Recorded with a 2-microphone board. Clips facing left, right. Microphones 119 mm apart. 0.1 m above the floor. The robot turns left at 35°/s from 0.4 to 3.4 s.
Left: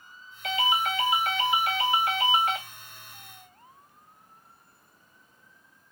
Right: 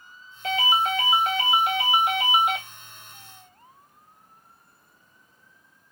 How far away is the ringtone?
About 0.7 m.